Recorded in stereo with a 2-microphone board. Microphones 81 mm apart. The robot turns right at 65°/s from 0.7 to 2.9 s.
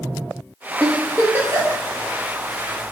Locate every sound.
0.8 s a giggle: 5° left (ahead or behind), 2 m; by 1.8 s 55° right (ahead or behind), 2 m